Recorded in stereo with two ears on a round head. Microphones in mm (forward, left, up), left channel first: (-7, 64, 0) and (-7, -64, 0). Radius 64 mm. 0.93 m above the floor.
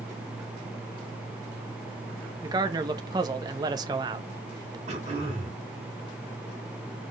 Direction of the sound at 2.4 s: 30° right (ahead or behind).